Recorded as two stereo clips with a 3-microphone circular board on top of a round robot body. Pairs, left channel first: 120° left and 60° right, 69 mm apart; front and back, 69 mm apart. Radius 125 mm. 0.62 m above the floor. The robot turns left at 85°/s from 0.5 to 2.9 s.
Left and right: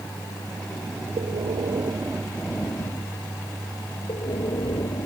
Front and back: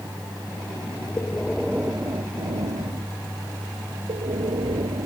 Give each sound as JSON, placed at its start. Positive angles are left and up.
{"t": 1.2, "sound": "breathing", "azimuth_deg": -50}